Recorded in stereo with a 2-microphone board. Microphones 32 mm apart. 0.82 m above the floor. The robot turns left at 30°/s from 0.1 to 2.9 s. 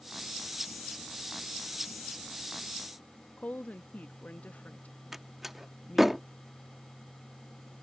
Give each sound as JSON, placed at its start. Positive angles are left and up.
{"t": 3.4, "sound": "a woman speaking", "side_deg": 50}
{"t": 5.1, "sound": "a door slam", "side_deg": -10}